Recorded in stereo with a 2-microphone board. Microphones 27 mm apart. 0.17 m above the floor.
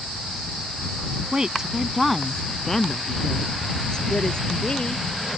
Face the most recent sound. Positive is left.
turn(degrees=35)  # may be behind; listen again after turning